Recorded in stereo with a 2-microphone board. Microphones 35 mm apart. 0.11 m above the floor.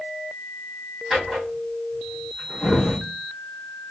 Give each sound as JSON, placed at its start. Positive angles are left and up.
{"t": 1.1, "sound": "a drawer", "side_deg": -5, "distance_m": 3.0}